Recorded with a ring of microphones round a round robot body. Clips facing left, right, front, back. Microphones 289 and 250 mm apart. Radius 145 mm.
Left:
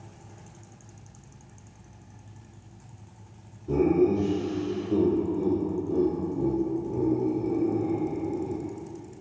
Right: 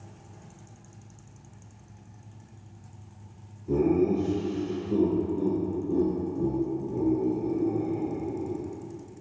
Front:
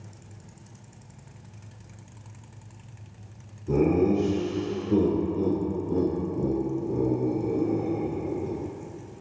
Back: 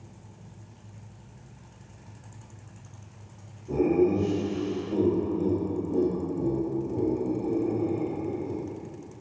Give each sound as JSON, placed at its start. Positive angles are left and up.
{"t": 3.7, "sound": "laughter", "azimuth_deg": 5, "distance_m": 1.4}